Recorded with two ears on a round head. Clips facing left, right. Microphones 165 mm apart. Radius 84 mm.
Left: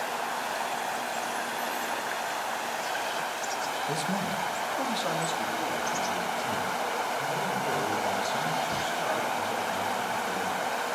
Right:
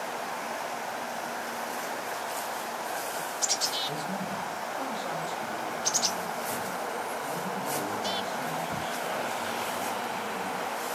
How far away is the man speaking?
About 1.9 m.